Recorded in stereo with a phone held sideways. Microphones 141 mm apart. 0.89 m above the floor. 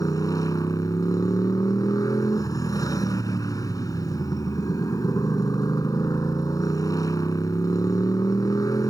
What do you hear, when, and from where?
0.0 s a motorcycle: 25° left (ahead or behind)